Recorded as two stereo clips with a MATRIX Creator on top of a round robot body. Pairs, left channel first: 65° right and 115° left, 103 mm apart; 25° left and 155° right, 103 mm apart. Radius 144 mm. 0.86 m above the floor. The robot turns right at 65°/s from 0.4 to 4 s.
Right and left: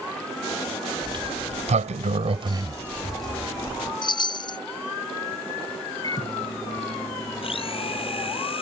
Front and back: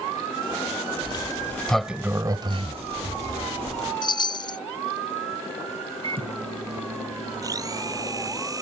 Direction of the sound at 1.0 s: 60° left.